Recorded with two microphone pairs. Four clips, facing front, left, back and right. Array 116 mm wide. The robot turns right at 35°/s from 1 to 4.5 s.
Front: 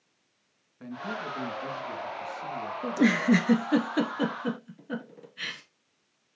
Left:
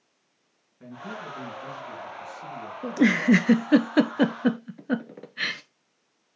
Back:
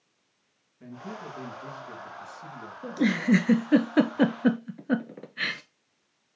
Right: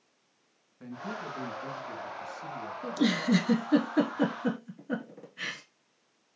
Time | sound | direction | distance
0.8 | a man speaking | 10° right | 2.5 m
2.8 | a giggle | 65° left | 0.9 m